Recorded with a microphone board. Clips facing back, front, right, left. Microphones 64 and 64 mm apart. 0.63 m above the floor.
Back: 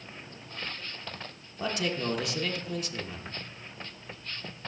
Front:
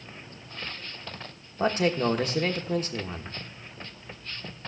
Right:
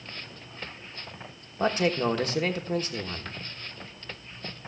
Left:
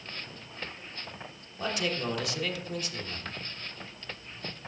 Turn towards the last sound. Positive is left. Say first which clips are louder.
# front 7 dB, right 7 dB
turn(degrees=-45)